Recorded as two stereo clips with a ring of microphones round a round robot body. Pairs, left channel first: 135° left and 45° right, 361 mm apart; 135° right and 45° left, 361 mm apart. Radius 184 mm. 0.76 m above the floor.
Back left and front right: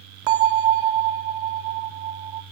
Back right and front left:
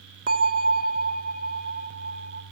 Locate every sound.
0.3 s a bell: 25° right, 1.4 m